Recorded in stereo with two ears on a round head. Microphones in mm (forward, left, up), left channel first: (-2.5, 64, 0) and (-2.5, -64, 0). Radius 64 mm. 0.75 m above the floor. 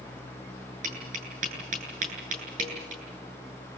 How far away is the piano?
I don't hear a piano.